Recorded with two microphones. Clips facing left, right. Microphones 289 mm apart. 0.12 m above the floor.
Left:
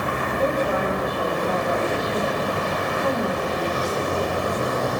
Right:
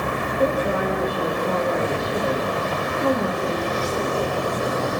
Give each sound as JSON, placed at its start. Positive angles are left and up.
{"t": 0.4, "sound": "a woman speaking", "side_deg": -35, "distance_m": 6.0}